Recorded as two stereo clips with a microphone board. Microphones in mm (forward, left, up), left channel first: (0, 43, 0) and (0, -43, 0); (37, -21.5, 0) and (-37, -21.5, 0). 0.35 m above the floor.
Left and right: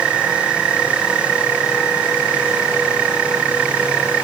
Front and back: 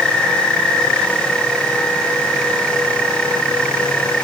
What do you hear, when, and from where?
Only background noise.